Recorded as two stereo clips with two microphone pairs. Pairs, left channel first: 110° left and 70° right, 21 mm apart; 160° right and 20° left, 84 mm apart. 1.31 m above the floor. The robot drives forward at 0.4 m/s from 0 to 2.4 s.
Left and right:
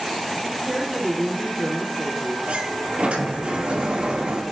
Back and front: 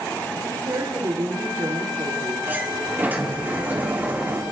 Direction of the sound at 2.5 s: 50° right.